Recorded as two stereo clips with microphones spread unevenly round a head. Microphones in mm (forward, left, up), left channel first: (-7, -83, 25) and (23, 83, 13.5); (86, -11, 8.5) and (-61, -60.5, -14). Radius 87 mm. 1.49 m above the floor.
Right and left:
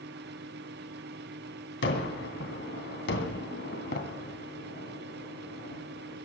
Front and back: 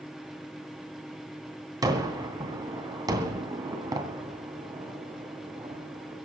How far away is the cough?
I don't hear a cough.